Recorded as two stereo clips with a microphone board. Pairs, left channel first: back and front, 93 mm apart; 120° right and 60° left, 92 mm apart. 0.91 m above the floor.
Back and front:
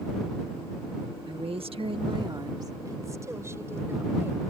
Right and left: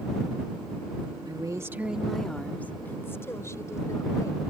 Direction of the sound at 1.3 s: 25° left.